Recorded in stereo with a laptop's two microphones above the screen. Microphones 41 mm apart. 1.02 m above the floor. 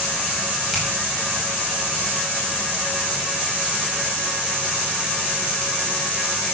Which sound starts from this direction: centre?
A finger snap, at 0.7 s.